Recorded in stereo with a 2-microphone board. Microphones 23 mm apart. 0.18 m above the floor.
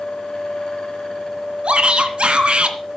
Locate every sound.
1.6 s a shout: 50° right (ahead or behind), 2 m